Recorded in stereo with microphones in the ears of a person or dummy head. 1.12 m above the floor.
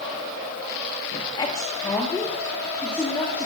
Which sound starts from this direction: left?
A woman speaking, at 1.1 s.